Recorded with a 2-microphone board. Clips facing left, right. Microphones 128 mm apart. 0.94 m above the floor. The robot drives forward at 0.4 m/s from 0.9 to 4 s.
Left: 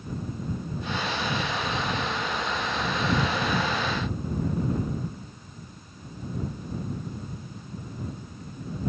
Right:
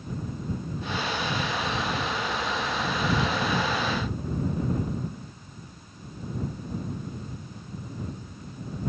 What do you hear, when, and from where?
Only background noise.